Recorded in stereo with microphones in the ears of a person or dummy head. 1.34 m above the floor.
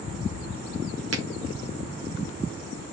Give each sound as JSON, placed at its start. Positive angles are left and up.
{"t": 1.1, "sound": "a finger snap", "side_deg": -85, "distance_m": 3.5}